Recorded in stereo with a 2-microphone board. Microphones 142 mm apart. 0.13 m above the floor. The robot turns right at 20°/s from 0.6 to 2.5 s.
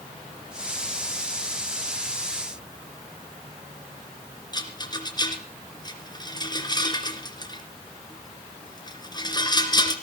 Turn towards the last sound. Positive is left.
turn(degrees=30)  # may be behind; listen again after turning